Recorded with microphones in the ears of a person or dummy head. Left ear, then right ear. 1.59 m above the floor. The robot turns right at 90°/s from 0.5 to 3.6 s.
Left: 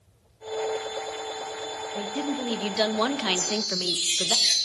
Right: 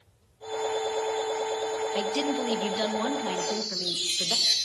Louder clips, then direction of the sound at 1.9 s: Right 1 dB; 55° right.